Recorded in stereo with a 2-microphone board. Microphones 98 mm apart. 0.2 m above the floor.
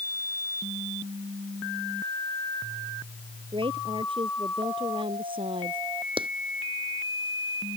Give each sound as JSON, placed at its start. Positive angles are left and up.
{"t": 3.5, "sound": "a woman speaking", "side_deg": -55}
{"t": 6.2, "sound": "a clap", "side_deg": -55}